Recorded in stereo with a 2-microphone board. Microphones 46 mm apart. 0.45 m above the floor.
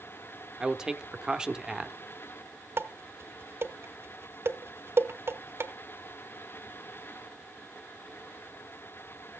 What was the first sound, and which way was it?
A man speaking, 15° right (ahead or behind).